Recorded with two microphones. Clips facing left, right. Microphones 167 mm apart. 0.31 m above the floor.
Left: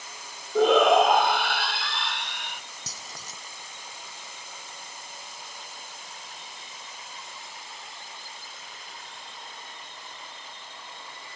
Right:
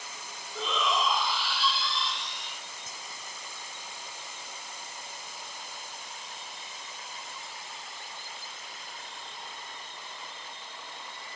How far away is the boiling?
I don't hear boiling.